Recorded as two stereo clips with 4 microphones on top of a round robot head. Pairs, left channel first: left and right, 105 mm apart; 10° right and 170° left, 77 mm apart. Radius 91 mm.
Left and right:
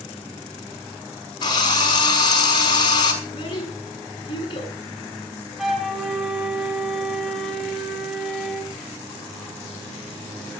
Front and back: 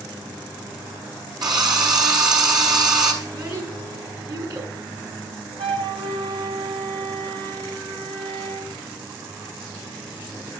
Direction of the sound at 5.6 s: Straight behind.